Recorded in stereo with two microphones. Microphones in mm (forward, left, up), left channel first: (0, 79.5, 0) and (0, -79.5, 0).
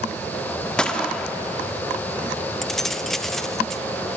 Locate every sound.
0.8 s a gunshot: 5° left (ahead or behind), 1.2 m
2.6 s keys jangling: centre (ahead or behind), 0.6 m